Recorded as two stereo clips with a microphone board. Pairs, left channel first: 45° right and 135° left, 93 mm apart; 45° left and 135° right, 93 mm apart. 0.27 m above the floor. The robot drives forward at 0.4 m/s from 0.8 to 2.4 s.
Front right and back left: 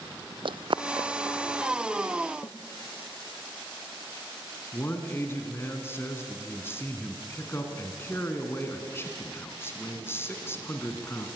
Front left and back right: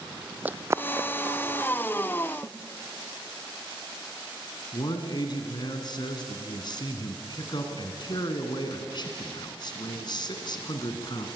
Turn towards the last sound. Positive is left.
turn(degrees=15)